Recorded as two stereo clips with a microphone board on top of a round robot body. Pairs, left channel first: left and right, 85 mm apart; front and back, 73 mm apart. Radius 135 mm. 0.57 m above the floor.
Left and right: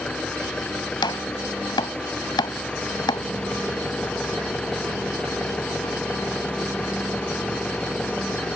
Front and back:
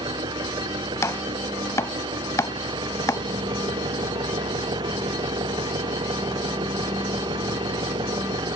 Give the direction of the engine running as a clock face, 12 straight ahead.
6 o'clock.